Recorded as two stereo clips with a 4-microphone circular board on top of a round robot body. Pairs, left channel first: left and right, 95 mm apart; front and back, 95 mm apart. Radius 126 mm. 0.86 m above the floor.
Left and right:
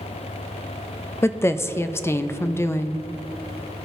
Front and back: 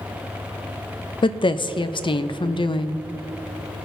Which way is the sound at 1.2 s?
25° left.